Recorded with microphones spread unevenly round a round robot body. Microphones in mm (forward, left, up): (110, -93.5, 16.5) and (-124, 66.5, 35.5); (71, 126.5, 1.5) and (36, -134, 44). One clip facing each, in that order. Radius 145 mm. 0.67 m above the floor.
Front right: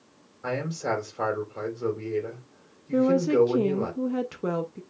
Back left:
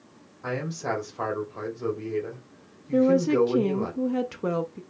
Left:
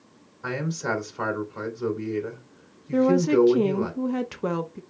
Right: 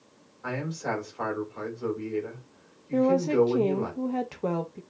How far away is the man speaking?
About 2.5 m.